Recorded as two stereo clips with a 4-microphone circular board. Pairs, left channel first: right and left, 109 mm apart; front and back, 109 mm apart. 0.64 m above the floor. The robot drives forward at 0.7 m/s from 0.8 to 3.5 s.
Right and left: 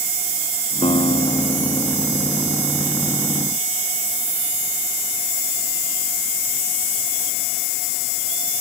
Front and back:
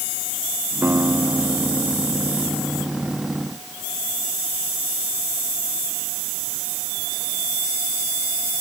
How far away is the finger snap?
No finger snap in this recording.